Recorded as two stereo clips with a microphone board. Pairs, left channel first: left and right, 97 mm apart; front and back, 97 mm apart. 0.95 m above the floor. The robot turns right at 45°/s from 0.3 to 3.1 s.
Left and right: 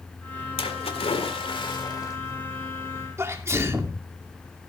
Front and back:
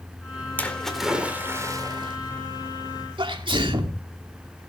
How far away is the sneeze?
About 2 m.